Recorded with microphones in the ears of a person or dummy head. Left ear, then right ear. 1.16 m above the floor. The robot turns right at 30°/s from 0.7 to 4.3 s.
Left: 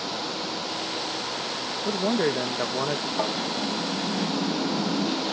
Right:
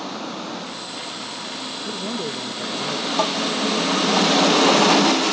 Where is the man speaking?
110° left; by 3.1 s 145° left.